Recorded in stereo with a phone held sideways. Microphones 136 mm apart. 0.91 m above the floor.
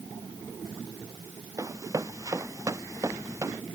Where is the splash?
I don't hear a splash.